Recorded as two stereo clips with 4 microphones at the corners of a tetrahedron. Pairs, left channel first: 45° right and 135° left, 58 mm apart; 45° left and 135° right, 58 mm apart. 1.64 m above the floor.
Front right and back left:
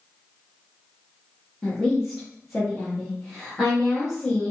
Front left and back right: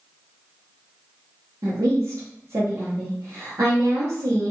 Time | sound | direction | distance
1.6 | a woman speaking | 135° right | 0.9 m